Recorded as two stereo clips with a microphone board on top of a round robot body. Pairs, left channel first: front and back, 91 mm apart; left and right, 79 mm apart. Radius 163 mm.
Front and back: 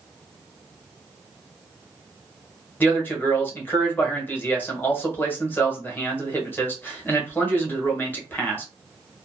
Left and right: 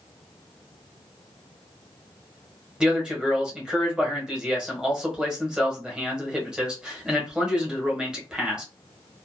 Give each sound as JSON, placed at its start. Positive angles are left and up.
{"t": 2.8, "sound": "a man speaking", "azimuth_deg": -25, "distance_m": 1.3}